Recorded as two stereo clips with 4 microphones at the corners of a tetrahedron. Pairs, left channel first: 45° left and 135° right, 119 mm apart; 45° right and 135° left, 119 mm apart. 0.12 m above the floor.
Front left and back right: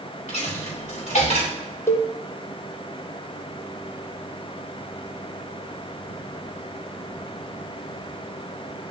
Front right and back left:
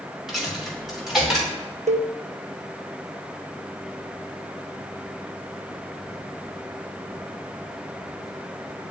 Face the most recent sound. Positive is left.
turn(degrees=115)